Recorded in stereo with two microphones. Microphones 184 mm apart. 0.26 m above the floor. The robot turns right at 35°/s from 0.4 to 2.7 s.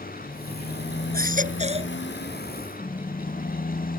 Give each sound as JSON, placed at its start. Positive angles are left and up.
{"t": 0.0, "sound": "a motorcycle", "azimuth_deg": 50}
{"t": 1.1, "sound": "a baby crying", "side_deg": -55}
{"t": 2.8, "sound": "a car horn", "side_deg": 35}